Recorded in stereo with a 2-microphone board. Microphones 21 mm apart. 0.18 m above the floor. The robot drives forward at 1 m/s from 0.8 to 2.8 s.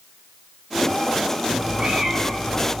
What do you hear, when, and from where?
1.5 s a cat meowing: 50° right (ahead or behind), 2.5 m; by 2.7 s 35° right (ahead or behind), 3.5 m